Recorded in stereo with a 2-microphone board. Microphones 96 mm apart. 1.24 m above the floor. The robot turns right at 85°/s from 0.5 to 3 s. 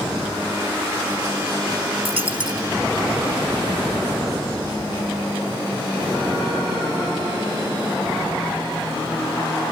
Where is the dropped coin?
85° right; by 2.7 s 35° right.